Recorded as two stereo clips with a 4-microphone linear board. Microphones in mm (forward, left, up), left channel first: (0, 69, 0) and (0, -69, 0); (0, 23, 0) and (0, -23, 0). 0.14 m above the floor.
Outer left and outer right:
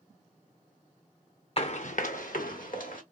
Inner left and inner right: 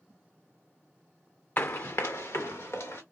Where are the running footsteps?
45° left (ahead or behind), 0.5 m; by 3.0 s 85° left, 1.7 m.